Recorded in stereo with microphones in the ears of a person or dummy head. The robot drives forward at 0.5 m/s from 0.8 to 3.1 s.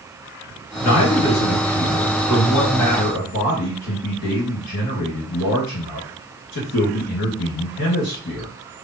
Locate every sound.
0.8 s a man speaking: 75° left (ahead or behind), 1.4 m; by 8.5 s 55° left (ahead or behind), 1.6 m